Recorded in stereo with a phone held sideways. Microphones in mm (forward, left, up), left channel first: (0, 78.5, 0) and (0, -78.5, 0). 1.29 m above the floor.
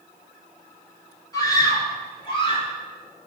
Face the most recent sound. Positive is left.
turn(degrees=40)  # may be behind; listen again after turning